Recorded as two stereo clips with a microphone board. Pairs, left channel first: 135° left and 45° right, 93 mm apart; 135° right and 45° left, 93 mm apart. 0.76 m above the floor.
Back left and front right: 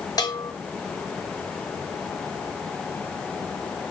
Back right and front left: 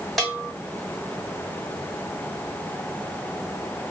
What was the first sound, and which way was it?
A bell, 135° left.